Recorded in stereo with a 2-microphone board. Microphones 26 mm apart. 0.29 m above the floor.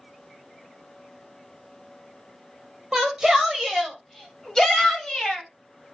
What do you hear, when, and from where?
2.9 s a shout: 20° right (ahead or behind), 1.2 m; by 5.5 s 30° left (ahead or behind), 1.7 m